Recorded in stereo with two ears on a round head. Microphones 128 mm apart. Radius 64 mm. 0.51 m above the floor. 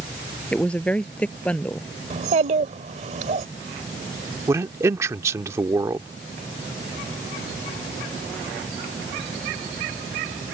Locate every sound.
0.5 s a woman speaking: 10° left (ahead or behind)
2.1 s a child speaking: 50° right (ahead or behind)
4.5 s a man speaking: 20° right (ahead or behind)